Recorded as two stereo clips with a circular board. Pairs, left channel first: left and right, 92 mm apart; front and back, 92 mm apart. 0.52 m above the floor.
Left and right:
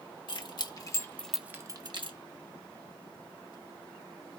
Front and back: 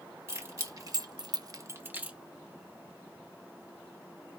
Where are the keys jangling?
120° left, 1.4 m; by 2.2 s 105° right, 1.0 m.